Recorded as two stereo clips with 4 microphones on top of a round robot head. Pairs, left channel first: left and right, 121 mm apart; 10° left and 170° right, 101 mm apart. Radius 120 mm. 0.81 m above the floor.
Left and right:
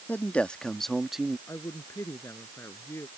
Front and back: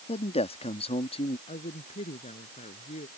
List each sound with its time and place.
0.1 s a man speaking: 15° left; by 1.4 s 5° right
1.5 s a woman speaking: 20° left